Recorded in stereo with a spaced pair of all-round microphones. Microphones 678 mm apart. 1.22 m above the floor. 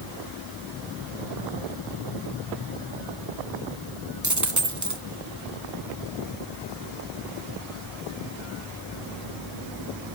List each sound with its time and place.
4.2 s a dropped coin: 25° right (ahead or behind), 1.2 m